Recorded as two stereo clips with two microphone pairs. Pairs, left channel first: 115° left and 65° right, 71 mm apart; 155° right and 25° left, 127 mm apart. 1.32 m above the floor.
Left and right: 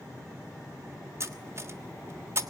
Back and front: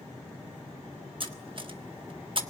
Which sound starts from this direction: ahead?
Cutlery clinking, at 1.2 s.